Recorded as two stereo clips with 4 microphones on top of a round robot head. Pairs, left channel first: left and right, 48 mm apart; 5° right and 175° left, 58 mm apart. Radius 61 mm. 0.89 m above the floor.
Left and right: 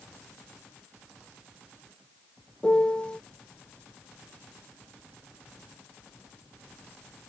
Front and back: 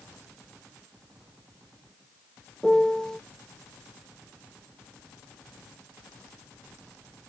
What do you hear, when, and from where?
2.6 s a piano: 60° left